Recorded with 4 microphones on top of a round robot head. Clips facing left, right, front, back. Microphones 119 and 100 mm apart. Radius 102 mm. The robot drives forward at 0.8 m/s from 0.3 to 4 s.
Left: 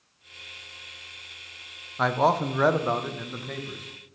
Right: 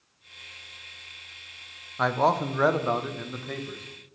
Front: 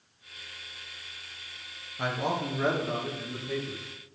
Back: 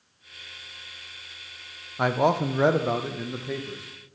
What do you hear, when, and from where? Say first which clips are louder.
2.0 s a man speaking: left 1 dB, back 8 dB; 175° left, 0.5 m; by 3.8 s straight behind, 1.8 m